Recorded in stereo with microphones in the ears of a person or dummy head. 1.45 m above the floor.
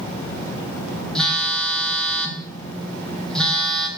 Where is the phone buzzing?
Centre (ahead or behind), 1.1 m.